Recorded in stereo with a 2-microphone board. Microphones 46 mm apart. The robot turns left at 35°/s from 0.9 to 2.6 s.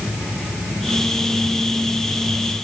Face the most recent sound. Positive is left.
No sound to turn to.